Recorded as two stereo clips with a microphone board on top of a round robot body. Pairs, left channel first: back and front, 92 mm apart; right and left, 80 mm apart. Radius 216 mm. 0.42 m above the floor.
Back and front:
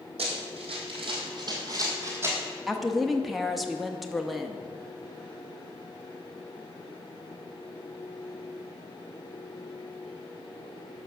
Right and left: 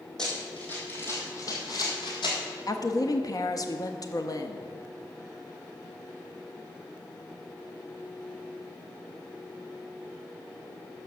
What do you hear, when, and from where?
0.2 s running footsteps: 5° right, 1.7 m; by 2.4 s 65° right, 1.6 m
2.7 s a woman speaking: 90° right, 1.0 m